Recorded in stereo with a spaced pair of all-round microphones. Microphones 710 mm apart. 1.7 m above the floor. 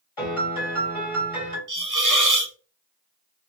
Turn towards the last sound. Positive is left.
turn(degrees=-30)  # may be behind; listen again after turning